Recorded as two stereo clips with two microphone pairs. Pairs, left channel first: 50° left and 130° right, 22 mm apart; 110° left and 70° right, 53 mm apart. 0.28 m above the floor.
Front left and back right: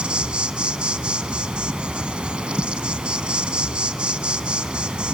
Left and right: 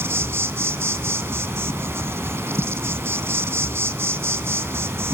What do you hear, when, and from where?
0.0 s an insect: 100° right, 0.7 m